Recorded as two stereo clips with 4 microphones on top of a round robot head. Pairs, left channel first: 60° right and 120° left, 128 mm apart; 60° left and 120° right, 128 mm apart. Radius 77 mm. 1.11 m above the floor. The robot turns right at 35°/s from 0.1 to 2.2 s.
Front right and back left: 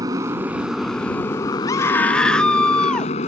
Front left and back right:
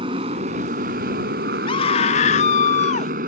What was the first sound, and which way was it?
A motorcycle, 175° right.